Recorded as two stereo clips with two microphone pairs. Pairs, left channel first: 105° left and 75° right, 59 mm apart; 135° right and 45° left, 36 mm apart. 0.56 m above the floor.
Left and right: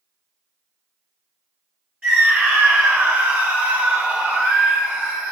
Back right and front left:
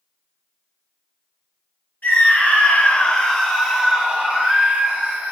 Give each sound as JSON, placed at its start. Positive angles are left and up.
{"t": 2.0, "sound": "a scream", "azimuth_deg": -145, "distance_m": 1.1}